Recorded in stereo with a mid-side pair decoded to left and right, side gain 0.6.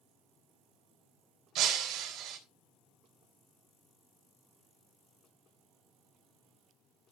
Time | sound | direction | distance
1.6 | breaking glass | 70° right | 4 m